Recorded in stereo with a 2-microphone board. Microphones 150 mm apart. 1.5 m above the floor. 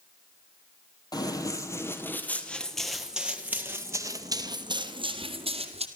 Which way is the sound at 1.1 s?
25° left (ahead or behind).